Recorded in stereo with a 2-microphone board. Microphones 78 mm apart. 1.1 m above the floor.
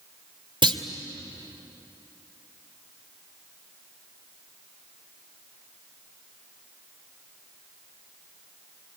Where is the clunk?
80° right, 2 m.